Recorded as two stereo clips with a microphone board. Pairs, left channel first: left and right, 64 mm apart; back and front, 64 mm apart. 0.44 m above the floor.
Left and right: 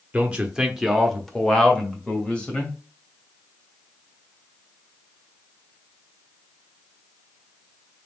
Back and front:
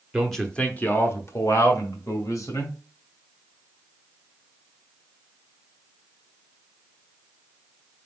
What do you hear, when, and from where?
0.1 s a man speaking: 75° right, 0.7 m; by 2.7 s 160° left, 1.9 m